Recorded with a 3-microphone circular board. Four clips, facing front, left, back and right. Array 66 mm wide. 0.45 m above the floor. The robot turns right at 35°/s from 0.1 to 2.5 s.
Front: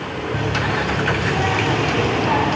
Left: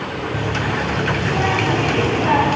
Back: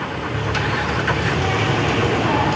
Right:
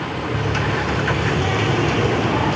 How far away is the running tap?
About 2 m.